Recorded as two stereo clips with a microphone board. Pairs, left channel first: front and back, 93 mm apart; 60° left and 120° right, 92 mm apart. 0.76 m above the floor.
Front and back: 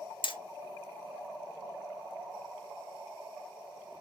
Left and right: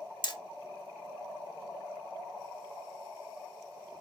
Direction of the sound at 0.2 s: 25° left.